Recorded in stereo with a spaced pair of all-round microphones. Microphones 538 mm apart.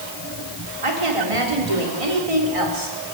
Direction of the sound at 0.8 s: 65° right (ahead or behind).